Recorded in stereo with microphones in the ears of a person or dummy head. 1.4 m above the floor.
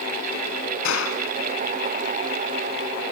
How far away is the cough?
No cough in this recording.